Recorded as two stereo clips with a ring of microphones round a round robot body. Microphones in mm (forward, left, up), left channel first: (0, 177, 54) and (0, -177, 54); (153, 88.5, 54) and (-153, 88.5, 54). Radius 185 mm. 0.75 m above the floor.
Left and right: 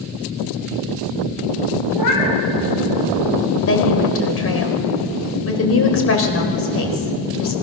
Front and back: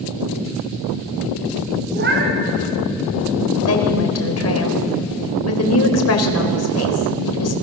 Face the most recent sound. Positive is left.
turn(degrees=40)